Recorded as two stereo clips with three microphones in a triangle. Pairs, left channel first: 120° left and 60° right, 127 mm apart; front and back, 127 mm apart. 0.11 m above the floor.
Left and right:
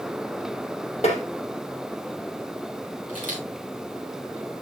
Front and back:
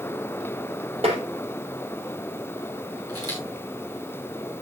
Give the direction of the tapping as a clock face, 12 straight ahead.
7 o'clock.